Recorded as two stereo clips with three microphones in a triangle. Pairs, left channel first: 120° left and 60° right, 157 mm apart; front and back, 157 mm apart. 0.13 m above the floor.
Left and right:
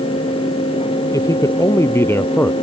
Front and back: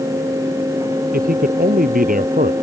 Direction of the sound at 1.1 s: 175° right.